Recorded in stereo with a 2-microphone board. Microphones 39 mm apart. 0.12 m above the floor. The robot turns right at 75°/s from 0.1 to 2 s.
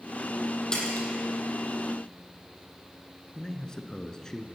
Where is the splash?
15° left (ahead or behind), 4.5 m; by 1.1 s 40° left (ahead or behind), 4.5 m.